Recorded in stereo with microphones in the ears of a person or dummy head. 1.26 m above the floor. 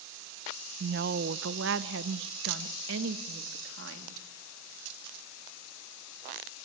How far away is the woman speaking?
About 0.5 m.